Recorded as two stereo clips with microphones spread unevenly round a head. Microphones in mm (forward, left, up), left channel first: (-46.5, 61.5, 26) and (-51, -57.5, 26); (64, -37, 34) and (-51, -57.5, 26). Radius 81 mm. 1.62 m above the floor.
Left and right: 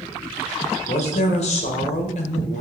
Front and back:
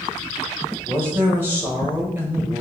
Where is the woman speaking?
110° left, 1.3 m.